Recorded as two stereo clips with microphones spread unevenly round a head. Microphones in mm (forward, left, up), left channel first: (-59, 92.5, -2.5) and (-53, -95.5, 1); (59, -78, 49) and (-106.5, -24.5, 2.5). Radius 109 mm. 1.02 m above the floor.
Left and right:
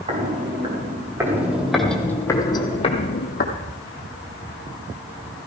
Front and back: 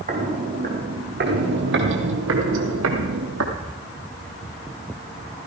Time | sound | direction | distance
0.1 | footsteps | 150° right | 3.5 m